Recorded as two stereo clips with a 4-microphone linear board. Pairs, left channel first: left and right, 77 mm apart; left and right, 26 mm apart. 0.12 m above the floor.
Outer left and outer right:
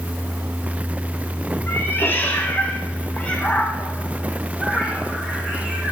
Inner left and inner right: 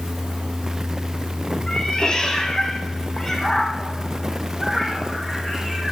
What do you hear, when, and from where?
1.7 s a cat meowing: 30° left (ahead or behind), 3 m; by 5.9 s 15° right (ahead or behind), 3.5 m